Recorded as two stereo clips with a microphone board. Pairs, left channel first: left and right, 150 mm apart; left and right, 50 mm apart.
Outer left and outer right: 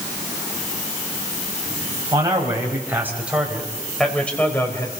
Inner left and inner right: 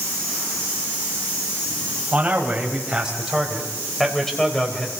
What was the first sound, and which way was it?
A man speaking, 25° right (ahead or behind).